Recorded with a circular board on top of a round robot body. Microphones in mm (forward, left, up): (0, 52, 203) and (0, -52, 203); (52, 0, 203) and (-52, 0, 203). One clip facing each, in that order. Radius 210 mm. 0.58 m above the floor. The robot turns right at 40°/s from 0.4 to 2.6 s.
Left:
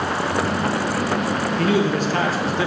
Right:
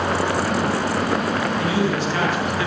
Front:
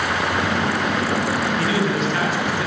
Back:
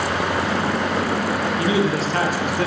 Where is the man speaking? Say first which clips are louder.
Left 2 dB, back 1 dB; 110° left, 1.2 m; by 2.7 s 150° left, 1.2 m.